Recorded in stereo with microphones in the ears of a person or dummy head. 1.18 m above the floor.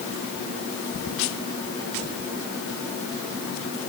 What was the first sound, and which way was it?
Only background noise.